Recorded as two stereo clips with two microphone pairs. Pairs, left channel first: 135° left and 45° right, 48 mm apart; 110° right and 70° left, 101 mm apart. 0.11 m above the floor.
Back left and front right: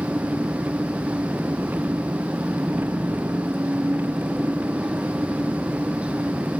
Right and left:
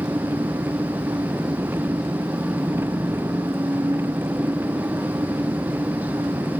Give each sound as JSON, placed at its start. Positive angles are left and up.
{"t": 0.0, "sound": "an engine running", "azimuth_deg": 5}